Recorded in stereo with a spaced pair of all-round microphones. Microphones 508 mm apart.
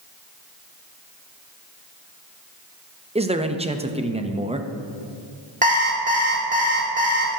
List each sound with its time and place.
3.1 s a man speaking: 10° right (ahead or behind), 0.6 m
5.6 s an alarm clock: 15° right (ahead or behind), 1.6 m